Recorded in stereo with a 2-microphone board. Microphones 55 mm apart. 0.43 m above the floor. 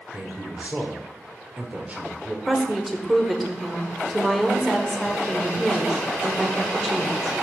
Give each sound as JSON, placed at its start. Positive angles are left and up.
{"t": 0.1, "sound": "a man speaking", "side_deg": -25, "distance_m": 1.0}
{"t": 2.5, "sound": "a woman speaking", "side_deg": 0, "distance_m": 1.1}